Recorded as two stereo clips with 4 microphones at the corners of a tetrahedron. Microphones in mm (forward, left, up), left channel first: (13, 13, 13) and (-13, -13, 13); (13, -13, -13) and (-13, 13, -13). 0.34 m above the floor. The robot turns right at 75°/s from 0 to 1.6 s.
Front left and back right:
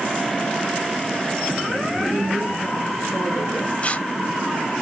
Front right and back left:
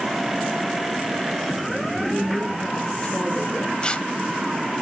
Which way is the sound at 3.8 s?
5° left.